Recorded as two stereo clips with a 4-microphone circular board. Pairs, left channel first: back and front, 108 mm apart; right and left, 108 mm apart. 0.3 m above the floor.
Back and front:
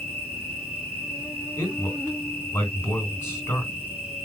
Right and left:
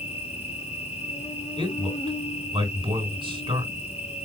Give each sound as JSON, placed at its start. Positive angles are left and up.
{"t": 0.0, "sound": "an insect", "azimuth_deg": -80, "distance_m": 3.0}
{"t": 1.6, "sound": "a man speaking", "azimuth_deg": 115, "distance_m": 3.0}